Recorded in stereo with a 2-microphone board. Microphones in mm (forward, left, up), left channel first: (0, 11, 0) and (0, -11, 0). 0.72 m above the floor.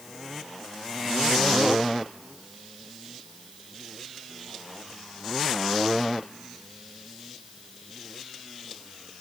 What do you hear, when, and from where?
Only background noise.